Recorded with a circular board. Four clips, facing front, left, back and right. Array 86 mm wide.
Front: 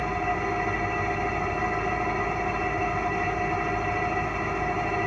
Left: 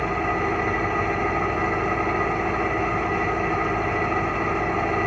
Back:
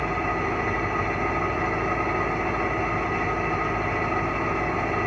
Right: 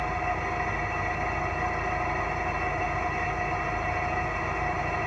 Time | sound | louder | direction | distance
0.0 | an engine running | left 5 dB, back 1 dB | 115° left | 0.8 m